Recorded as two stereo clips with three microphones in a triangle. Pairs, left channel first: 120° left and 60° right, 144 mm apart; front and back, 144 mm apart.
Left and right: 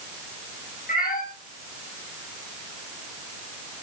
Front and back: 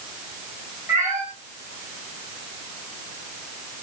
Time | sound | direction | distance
0.9 | a cat meowing | 110° left | 6.5 m